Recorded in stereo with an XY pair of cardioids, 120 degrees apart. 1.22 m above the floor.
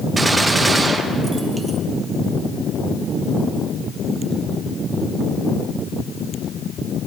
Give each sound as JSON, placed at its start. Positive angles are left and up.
{"t": 0.2, "sound": "a gunshot", "azimuth_deg": -20, "distance_m": 1.0}